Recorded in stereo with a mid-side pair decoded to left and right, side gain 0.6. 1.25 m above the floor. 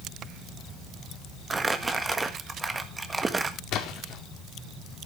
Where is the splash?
60° left, 2 m.